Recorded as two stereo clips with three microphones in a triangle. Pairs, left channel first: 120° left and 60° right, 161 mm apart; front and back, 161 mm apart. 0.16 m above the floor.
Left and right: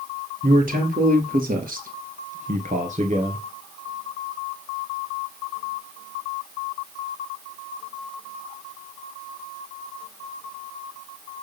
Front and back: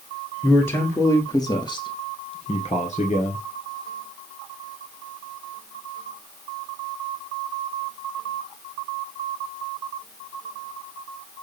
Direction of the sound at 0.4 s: 80° right.